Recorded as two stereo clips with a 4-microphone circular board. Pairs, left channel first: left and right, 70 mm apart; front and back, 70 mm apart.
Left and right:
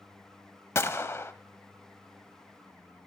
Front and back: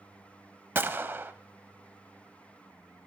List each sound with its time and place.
0.8 s a gunshot: 130° left, 0.6 m